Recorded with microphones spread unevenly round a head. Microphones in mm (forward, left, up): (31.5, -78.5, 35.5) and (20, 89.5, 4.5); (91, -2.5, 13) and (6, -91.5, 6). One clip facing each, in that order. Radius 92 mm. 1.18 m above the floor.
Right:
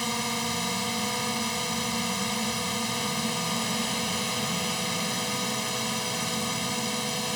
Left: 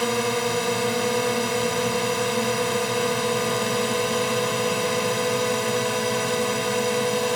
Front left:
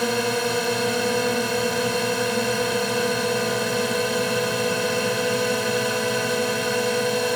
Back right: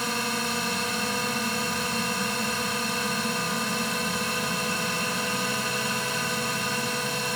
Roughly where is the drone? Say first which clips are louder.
Left 9 dB, front left 7 dB; ahead left.